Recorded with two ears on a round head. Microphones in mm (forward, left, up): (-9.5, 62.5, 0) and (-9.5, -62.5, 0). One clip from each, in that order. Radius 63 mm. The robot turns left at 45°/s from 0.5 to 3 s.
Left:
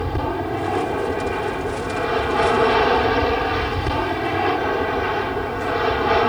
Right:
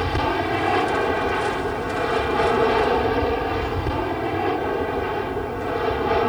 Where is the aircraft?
110° right; by 6.3 s 140° left.